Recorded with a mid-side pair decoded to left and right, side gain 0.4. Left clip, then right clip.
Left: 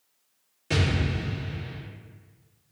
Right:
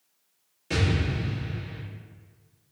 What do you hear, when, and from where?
0.7 s an explosion: 25° left, 1.8 m